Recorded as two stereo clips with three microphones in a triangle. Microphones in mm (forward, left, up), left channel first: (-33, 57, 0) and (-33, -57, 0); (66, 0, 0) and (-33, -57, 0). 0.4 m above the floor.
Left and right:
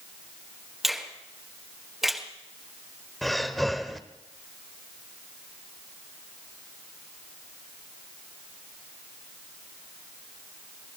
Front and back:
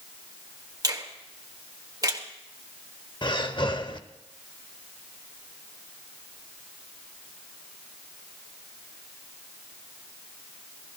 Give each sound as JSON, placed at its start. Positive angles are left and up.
{"t": 0.8, "sound": "a finger snap", "azimuth_deg": -175, "distance_m": 1.4}
{"t": 3.2, "sound": "breathing", "azimuth_deg": 0, "distance_m": 0.8}